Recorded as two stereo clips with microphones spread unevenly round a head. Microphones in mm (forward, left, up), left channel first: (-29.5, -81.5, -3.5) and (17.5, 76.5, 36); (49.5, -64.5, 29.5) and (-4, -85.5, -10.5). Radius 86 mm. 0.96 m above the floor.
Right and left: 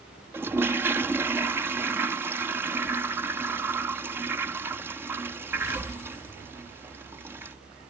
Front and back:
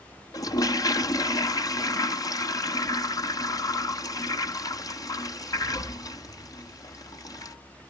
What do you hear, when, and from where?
0.3 s a toilet flushing: 5° right